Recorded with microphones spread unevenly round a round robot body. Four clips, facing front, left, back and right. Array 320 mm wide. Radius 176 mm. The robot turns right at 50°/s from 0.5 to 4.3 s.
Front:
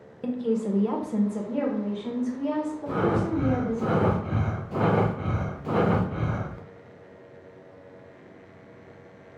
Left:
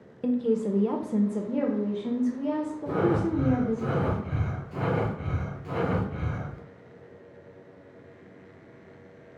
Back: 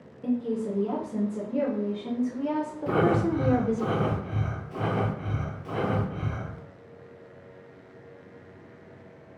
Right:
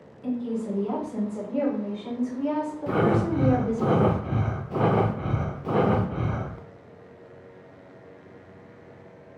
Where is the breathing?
130° right, 0.6 m; by 6.6 s 60° right, 0.6 m.